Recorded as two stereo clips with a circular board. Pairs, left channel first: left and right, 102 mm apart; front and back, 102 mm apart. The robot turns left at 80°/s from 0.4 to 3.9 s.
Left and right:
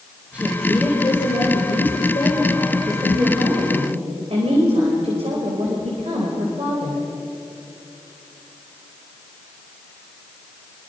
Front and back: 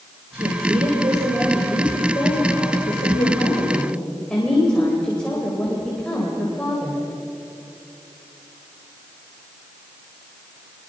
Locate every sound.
0.3 s a woman speaking: 165° right, 4 m; by 7.0 s 85° right, 4 m